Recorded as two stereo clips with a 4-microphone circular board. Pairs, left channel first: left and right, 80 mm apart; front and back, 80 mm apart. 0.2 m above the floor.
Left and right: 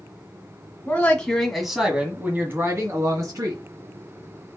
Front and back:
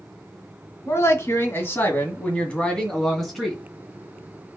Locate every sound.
0.8 s a woman speaking: 30° left, 1.9 m; by 3.6 s 95° right, 2 m